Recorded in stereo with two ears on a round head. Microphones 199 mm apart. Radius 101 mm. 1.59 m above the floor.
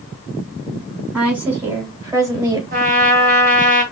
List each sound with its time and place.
1.1 s a woman speaking: 5° right (ahead or behind), 3.5 m; by 2.6 s 20° right (ahead or behind), 3.5 m
2.7 s a trumpet: 40° right (ahead or behind), 2 m